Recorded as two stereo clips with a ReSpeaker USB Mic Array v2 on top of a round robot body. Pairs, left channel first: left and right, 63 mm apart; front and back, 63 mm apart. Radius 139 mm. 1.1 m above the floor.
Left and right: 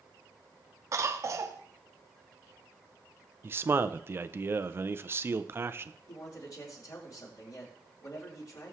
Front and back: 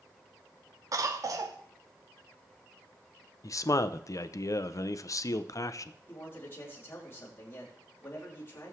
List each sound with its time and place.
0.9 s a cough: 140° right, 0.6 m
3.4 s a man speaking: 35° right, 0.7 m
6.1 s a man speaking: 60° left, 4 m